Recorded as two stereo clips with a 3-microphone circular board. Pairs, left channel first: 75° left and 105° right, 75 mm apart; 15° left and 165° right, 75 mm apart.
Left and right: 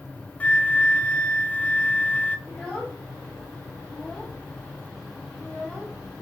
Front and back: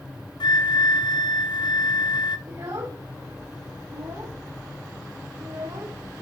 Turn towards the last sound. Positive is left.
turn(degrees=165)